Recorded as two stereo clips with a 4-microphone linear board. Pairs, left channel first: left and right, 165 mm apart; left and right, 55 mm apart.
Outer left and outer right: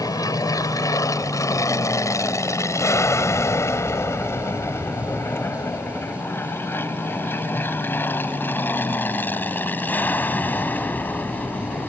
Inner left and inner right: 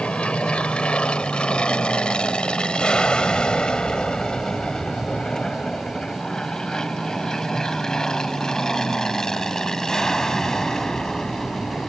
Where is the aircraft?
20° left (ahead or behind); by 11.9 s 10° left (ahead or behind).